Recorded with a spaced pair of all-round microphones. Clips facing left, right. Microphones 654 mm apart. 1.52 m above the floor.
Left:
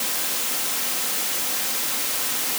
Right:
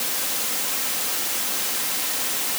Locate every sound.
Only background noise.